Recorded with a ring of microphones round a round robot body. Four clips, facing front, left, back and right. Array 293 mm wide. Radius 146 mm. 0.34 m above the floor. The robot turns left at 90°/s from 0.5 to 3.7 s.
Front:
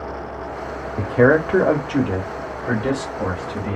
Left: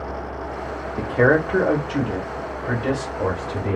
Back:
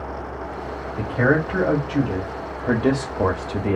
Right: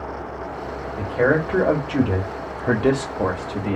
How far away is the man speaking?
About 1.0 m.